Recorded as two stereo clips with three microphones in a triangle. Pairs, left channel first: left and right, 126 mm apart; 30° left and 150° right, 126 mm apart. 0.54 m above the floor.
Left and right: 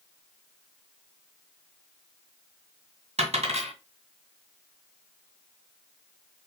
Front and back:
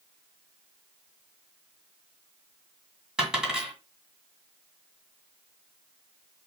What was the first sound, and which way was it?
A dropped coin, 65° right.